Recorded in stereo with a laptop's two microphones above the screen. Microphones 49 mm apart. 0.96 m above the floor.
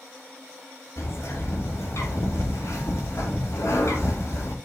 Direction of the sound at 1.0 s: 75° left (ahead or behind).